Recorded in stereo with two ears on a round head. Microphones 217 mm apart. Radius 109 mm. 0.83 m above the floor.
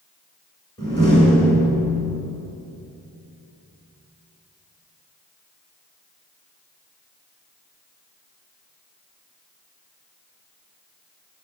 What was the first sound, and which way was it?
A door slam, 15° left (ahead or behind).